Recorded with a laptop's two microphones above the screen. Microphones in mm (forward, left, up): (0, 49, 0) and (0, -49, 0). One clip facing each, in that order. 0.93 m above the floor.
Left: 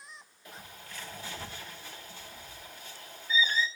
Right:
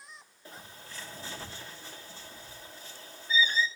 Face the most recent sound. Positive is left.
turn(degrees=-35)  # may be behind; listen again after turning